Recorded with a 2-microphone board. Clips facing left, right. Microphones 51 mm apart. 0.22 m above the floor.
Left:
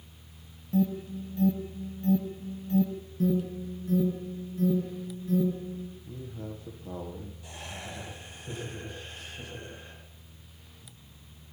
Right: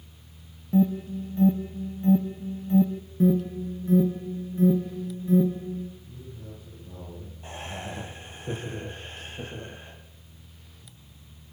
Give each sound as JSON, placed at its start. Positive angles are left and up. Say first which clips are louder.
{"t": 0.7, "sound": "an alarm", "louder": "right 5 dB", "side_deg": -25, "distance_m": 1.3}
{"t": 3.2, "sound": "an alarm", "louder": "right 5 dB", "side_deg": -25, "distance_m": 3.0}
{"t": 6.0, "sound": "a man speaking", "louder": "left 4 dB", "side_deg": 75, "distance_m": 7.5}
{"t": 7.4, "sound": "laughter", "louder": "right 8 dB", "side_deg": -40, "distance_m": 6.5}